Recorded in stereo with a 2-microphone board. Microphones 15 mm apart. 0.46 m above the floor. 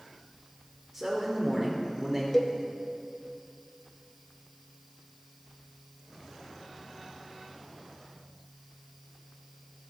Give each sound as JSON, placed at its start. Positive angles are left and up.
{"t": 0.9, "sound": "a man speaking", "side_deg": 0, "distance_m": 1.4}
{"t": 2.3, "sound": "a cowbell", "side_deg": 20, "distance_m": 0.7}